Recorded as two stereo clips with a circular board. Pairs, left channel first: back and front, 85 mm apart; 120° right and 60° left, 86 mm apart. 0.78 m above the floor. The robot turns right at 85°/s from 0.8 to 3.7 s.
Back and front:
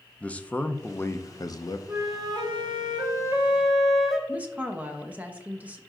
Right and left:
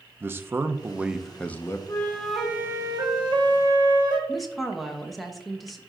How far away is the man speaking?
About 0.6 m.